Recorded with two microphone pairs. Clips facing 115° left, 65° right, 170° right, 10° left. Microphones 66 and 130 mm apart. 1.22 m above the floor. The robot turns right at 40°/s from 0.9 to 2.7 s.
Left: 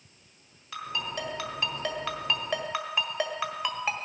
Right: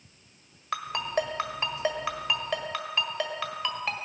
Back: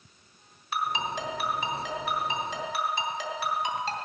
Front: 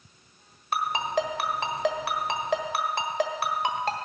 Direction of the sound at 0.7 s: 30° right.